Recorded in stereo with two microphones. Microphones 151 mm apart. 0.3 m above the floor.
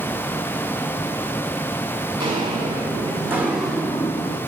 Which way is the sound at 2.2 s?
35° right (ahead or behind).